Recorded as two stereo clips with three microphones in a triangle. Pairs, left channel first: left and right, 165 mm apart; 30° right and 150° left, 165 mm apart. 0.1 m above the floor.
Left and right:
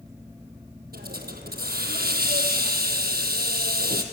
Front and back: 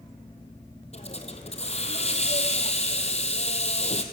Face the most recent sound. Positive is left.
turn(degrees=-80)